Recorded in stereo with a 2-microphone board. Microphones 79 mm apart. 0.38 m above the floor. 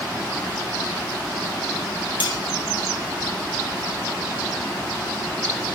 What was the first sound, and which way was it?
Cutlery clinking, 85° left.